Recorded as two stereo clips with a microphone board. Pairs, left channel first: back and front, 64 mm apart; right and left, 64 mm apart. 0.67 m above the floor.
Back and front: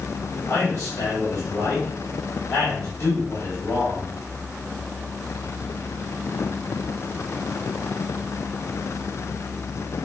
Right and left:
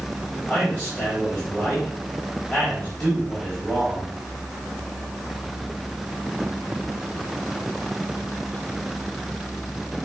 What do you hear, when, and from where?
0.5 s a man speaking: 160° right, 3.5 m